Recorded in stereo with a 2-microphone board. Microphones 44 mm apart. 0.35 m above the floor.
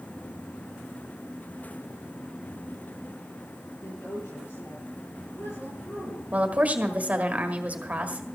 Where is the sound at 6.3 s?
35° right (ahead or behind), 1.5 m.